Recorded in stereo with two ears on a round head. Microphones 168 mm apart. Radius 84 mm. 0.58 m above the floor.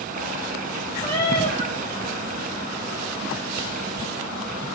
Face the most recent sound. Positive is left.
turn(degrees=20)  # may be behind; listen again after turning